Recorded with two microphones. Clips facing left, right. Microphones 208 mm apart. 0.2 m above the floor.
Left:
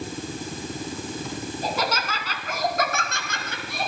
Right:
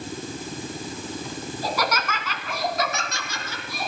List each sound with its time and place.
1.6 s laughter: 20° left (ahead or behind), 2.5 m; by 3.9 s 65° left (ahead or behind), 3.5 m